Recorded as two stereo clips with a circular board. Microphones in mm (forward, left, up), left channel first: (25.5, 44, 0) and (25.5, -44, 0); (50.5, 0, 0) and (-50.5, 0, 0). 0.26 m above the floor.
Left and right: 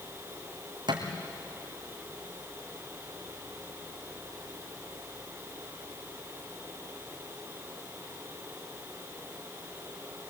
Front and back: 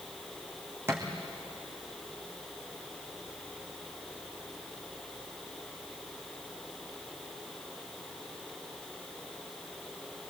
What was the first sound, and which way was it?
A thud, 115° right.